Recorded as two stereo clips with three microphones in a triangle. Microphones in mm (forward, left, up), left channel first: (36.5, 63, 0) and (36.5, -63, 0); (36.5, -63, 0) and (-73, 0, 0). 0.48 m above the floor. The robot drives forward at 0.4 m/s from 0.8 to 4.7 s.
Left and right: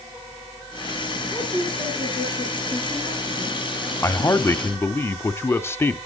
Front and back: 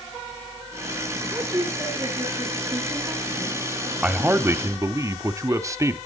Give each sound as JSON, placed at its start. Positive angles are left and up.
{"t": 1.3, "sound": "a woman speaking", "azimuth_deg": -145, "distance_m": 5.5}
{"t": 4.0, "sound": "a man speaking", "azimuth_deg": 90, "distance_m": 0.8}